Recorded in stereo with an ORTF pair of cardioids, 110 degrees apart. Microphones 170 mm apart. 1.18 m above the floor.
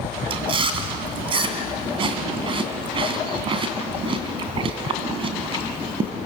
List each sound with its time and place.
0.3 s chewing: 35° right, 3 m